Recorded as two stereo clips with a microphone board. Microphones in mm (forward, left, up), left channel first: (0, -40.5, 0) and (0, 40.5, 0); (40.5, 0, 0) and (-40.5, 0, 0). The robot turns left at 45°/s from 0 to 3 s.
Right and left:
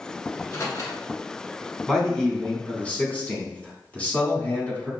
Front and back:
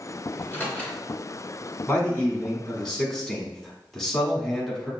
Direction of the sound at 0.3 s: 45° right.